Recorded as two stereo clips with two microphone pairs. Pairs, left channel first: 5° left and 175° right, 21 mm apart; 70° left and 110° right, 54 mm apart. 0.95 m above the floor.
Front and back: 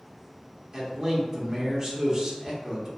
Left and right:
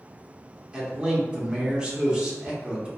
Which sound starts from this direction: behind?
A man speaking, at 0.7 s.